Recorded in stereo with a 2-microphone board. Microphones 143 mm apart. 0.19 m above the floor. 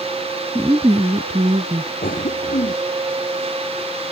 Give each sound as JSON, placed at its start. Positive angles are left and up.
{"t": 0.6, "sound": "a woman speaking", "side_deg": -20}
{"t": 2.0, "sound": "a cough", "side_deg": 75}